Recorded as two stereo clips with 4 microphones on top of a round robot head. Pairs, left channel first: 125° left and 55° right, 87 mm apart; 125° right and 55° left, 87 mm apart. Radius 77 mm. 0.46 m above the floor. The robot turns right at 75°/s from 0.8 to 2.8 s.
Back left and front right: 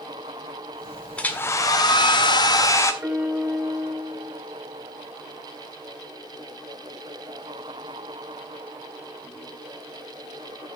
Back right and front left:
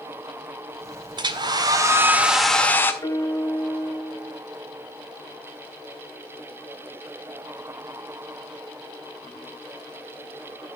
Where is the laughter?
No laughter in this recording.